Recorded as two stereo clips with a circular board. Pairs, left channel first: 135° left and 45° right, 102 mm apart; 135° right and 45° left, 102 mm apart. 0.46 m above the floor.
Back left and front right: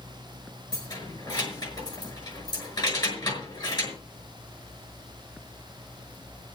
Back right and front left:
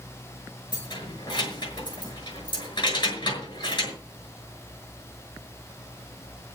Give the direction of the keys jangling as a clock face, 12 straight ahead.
6 o'clock.